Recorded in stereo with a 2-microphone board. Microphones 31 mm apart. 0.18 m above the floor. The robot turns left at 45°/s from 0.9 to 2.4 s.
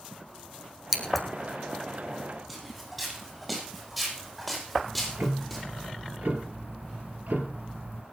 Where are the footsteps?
5° right (ahead or behind), 9.5 m; by 5.7 s centre (ahead or behind), 7 m.